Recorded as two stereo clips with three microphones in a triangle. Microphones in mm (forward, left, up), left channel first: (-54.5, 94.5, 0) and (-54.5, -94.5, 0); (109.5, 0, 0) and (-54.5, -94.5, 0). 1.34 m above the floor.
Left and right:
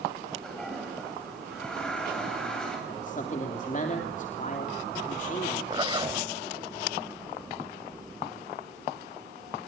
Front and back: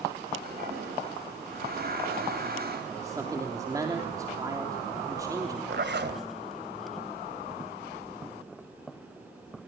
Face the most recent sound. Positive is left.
turn(degrees=-155)